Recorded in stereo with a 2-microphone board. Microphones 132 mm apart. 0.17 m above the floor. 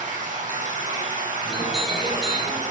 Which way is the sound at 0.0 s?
80° right.